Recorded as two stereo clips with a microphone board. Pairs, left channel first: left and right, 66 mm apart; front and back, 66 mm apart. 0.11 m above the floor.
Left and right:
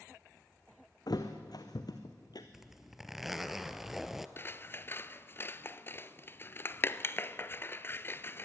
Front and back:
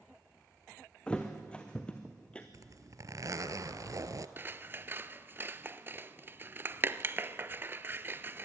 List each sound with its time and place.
1.1 s a thud: 75° left, 1.7 m
2.5 s a zipper: 175° right, 0.9 m
4.4 s scissors: 135° left, 0.6 m